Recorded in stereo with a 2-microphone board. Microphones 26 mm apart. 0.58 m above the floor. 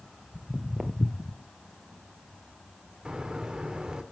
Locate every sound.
0.3 s footsteps: 50° right (ahead or behind), 1.1 m; by 1.4 s 30° left (ahead or behind), 0.8 m
3.0 s a bird: 30° right (ahead or behind), 1.2 m